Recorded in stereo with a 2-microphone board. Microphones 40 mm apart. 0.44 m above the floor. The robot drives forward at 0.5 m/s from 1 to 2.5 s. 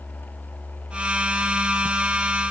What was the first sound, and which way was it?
Only background noise.